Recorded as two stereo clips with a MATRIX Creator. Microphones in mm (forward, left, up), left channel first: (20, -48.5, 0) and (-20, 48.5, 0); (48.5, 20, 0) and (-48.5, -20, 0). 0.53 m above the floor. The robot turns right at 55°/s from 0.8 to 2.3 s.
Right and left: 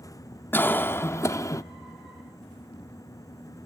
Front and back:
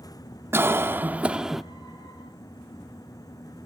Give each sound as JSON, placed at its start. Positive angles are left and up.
{"t": 0.5, "sound": "a cough", "azimuth_deg": -115, "distance_m": 0.7}